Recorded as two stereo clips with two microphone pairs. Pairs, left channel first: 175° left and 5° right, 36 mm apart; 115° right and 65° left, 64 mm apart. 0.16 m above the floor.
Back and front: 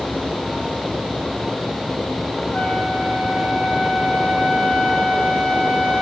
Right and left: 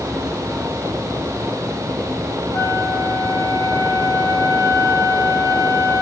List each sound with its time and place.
2.5 s a flute: 125° right, 6 m